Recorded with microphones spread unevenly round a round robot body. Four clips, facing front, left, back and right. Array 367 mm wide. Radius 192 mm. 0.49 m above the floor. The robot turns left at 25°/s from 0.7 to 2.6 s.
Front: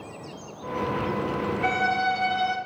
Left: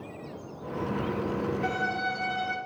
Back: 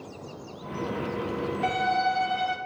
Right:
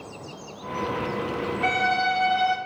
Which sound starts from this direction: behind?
A violin, at 1.6 s.